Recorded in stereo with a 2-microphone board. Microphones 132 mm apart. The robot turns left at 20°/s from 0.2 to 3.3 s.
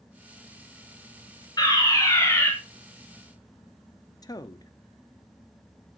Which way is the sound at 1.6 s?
30° left (ahead or behind).